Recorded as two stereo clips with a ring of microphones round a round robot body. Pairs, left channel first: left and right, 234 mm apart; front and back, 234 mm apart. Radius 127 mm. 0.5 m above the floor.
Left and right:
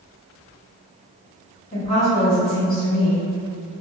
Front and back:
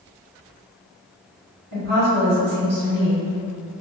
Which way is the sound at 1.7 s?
165° left.